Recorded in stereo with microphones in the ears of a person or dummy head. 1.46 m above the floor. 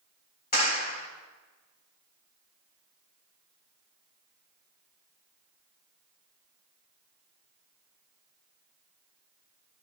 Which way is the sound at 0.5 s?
50° left (ahead or behind).